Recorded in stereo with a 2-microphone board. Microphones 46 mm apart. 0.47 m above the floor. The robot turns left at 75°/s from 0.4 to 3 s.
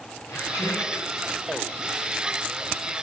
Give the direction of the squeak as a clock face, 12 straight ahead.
9 o'clock.